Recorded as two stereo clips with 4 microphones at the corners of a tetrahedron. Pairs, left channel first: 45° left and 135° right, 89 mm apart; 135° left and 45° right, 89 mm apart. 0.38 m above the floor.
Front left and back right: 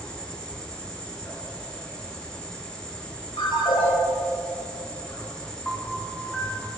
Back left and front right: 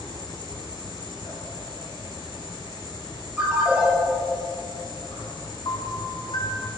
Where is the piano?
120° left, 2 m.